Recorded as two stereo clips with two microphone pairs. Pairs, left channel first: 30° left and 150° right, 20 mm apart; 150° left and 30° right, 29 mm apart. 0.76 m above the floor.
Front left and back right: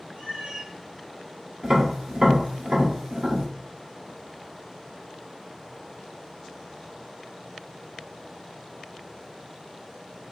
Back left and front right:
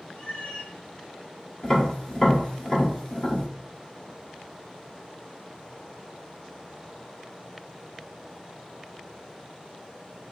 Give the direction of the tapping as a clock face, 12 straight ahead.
5 o'clock.